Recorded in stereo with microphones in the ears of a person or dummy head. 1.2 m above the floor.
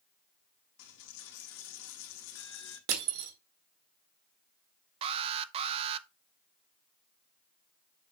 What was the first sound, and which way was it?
A dropped coin, 70° left (ahead or behind).